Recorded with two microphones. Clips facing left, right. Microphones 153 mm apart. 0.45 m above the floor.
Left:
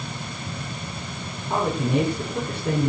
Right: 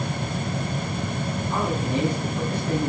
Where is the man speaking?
65° left (ahead or behind), 6 m.